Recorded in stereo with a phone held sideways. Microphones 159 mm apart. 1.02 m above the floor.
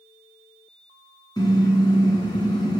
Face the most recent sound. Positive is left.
turn(degrees=25)  # may be behind; listen again after turning